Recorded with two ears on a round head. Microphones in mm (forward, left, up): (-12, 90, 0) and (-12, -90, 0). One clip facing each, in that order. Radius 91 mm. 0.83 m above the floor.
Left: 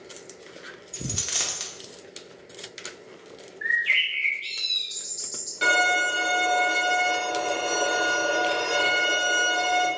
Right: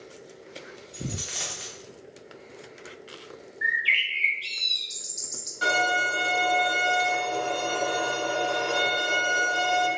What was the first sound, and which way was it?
A dropped coin, 55° left (ahead or behind).